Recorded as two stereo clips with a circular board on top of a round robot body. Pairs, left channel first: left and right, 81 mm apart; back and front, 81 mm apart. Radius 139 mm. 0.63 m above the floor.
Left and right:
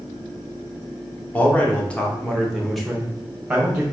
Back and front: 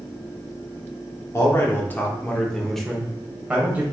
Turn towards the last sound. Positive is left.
turn(degrees=-40)